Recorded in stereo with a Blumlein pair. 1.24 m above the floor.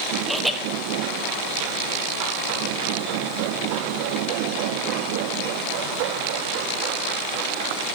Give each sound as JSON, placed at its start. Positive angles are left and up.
{"t": 0.3, "sound": "laughter", "azimuth_deg": 0, "distance_m": 1.3}